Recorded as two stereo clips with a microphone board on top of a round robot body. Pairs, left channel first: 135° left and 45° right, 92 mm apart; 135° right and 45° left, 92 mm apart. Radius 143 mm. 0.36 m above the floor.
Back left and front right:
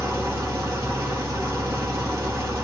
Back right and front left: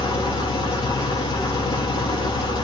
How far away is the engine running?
About 3 m.